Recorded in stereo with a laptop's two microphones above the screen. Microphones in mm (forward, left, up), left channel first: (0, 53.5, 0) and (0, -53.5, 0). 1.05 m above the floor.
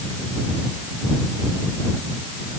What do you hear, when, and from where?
Only background noise.